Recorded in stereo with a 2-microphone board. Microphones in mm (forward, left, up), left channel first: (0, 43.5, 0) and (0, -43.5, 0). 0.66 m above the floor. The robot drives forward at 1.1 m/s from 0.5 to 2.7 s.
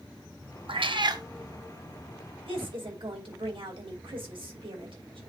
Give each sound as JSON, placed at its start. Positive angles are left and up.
{"t": 0.7, "sound": "a cat meowing", "side_deg": -70, "distance_m": 0.6}
{"t": 2.5, "sound": "a woman speaking", "side_deg": -80, "distance_m": 2.5}